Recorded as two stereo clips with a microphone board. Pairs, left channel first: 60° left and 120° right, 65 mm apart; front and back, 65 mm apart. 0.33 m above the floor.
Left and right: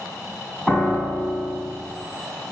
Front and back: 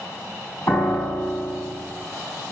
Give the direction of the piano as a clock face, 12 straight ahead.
1 o'clock.